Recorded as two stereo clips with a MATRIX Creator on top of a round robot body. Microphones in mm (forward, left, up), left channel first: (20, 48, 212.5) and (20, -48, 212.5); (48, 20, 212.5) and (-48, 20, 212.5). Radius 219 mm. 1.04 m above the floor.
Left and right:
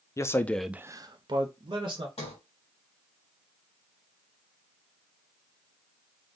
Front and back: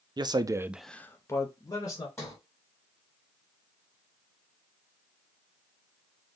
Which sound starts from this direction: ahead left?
A sliding door, at 2.2 s.